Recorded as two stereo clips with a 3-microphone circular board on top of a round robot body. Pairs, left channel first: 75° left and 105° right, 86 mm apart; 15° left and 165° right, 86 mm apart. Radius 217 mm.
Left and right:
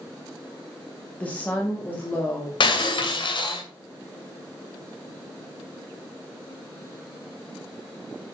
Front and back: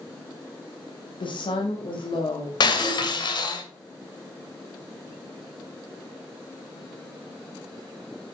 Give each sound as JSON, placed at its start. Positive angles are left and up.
{"t": 1.2, "sound": "a woman speaking", "azimuth_deg": 5, "distance_m": 1.9}
{"t": 2.6, "sound": "breaking glass", "azimuth_deg": 50, "distance_m": 2.5}